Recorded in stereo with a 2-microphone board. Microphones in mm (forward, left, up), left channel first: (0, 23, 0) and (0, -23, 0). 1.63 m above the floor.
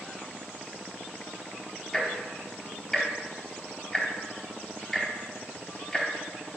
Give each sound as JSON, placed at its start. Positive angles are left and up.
{"t": 1.9, "sound": "ticking", "side_deg": 15, "distance_m": 2.5}